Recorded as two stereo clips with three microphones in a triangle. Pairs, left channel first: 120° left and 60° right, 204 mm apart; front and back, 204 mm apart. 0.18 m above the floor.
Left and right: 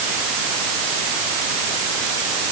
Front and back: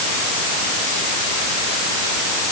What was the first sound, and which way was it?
Only background noise.